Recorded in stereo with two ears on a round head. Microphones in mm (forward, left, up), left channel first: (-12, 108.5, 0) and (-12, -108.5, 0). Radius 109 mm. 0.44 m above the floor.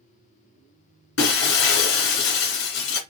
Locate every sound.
1.2 s breaking glass: 65° left (ahead or behind), 2.0 m